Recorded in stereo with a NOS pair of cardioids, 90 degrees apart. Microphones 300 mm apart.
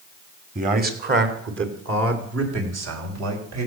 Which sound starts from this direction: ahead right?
A man speaking, at 0.6 s.